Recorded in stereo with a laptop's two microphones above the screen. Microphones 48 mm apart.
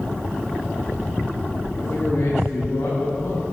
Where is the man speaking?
70° left (ahead or behind), 4 m; by 3.4 s 85° left, 3.5 m.